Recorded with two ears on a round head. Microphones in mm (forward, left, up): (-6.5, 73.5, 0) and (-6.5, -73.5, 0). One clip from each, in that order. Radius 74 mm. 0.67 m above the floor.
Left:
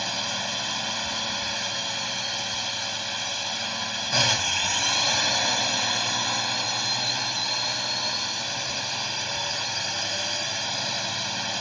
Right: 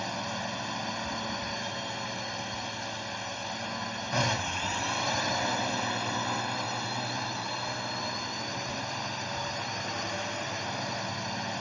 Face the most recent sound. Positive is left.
turn(degrees=75)  # may be behind; listen again after turning